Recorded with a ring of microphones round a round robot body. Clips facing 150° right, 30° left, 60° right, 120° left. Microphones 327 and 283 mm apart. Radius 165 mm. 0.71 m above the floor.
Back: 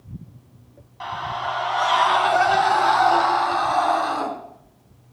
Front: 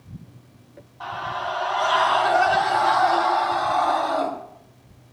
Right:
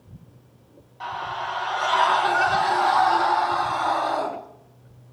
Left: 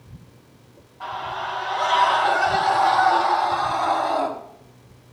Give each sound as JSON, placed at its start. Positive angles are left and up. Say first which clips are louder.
{"t": 1.0, "sound": "a scream", "louder": "even, left 1 dB", "azimuth_deg": -110, "distance_m": 5.0}